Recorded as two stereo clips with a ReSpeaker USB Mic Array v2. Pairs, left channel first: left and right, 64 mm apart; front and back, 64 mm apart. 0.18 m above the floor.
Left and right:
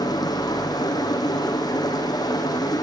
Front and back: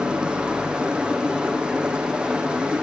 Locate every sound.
0.0 s running water: 105° left, 4 m